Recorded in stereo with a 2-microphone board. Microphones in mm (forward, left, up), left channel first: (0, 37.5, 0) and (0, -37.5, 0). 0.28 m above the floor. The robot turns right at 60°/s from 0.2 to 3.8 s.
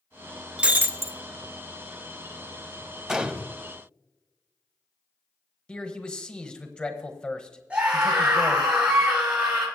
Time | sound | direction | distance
0.6 | breaking glass | 170° right | 0.7 m
3.1 | a gunshot | 5° right (ahead or behind) | 0.6 m
5.7 | a man speaking | 15° left (ahead or behind) | 1.1 m
7.7 | a scream | 15° right (ahead or behind) | 4 m